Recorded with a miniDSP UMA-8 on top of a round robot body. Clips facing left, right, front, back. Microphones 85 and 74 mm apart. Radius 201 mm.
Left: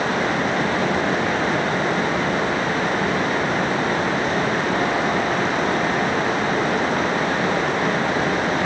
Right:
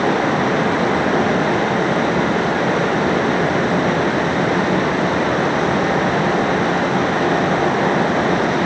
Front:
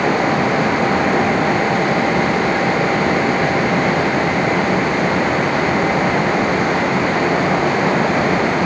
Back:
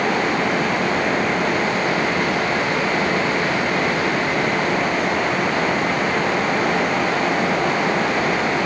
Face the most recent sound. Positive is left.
No sound to turn to.